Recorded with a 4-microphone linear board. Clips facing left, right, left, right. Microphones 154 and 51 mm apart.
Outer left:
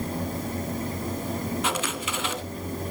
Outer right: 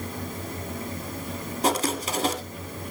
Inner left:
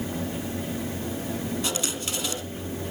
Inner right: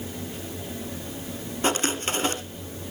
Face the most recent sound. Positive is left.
turn(degrees=-40)  # may be behind; listen again after turning